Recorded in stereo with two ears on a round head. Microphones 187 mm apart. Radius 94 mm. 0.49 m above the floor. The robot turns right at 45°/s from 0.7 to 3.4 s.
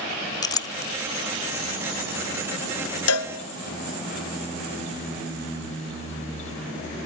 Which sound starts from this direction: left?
A cowbell, at 3.1 s.